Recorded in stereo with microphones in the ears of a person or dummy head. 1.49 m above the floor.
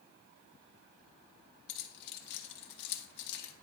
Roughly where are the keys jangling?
Left.